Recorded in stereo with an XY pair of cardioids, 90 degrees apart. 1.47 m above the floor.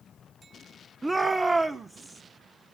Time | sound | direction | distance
1.0 | a shout | 25° right | 0.6 m